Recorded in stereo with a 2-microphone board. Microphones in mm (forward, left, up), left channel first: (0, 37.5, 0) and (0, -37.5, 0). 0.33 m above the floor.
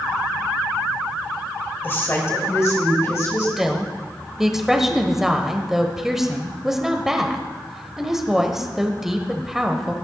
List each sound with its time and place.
1.8 s a woman speaking: 25° left (ahead or behind), 1.6 m; by 3.5 s 40° left (ahead or behind), 3 m
3.6 s a woman speaking: 5° right (ahead or behind), 1.1 m